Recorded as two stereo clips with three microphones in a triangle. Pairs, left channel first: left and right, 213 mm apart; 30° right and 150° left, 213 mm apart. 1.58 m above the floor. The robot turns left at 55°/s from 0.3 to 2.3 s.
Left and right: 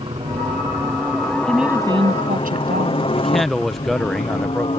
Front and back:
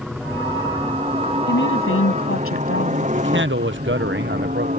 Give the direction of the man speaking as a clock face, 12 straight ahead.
6 o'clock.